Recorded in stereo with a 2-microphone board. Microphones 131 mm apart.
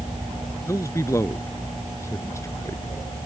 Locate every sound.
0.7 s a man speaking: 20° left (ahead or behind)